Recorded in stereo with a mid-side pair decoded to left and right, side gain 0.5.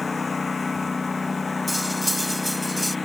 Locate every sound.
0.0 s a lawn mower: 25° left; by 3.1 s 20° left
1.7 s cutlery clinking: 5° right